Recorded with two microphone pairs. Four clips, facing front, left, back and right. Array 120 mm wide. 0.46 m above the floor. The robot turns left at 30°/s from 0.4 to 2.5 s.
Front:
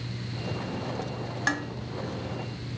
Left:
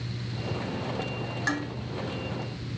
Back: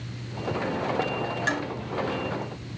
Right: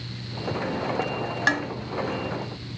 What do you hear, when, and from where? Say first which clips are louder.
1.5 s dishes clattering: right 5 dB, front 2 dB; 70° right, 2.5 m; by 1.7 s 75° right, 2.5 m